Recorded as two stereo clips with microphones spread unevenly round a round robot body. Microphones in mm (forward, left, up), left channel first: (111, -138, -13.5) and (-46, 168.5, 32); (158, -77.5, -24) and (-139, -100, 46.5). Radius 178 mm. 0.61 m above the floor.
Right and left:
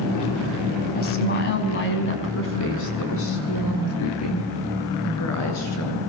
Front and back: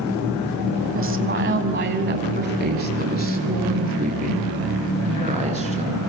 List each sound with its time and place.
0.9 s a woman speaking: 125° right, 5 m; by 6.0 s 110° right, 9.5 m